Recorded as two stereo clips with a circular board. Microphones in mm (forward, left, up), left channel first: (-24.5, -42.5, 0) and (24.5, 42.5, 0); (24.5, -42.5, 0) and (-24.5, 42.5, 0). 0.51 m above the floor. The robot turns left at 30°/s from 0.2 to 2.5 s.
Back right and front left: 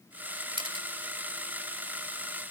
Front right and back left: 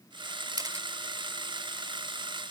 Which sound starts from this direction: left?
A camera shutter, at 0.6 s.